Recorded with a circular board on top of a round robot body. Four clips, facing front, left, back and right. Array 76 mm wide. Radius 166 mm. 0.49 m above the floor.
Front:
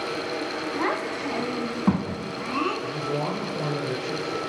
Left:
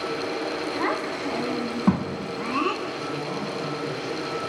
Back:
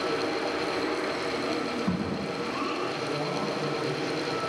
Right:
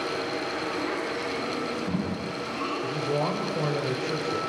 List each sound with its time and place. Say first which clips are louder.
0.8 s a child speaking: left 3 dB, front 2 dB; 45° left, 4.5 m; by 2.7 s 65° left, 6 m
2.8 s a man speaking: right 3 dB, front 2 dB; 70° right, 3.5 m